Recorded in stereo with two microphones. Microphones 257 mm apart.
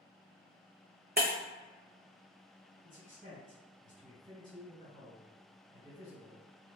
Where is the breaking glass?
40° right (ahead or behind), 1.0 m.